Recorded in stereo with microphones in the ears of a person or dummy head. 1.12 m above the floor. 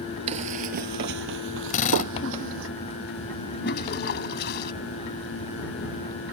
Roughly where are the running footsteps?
Right.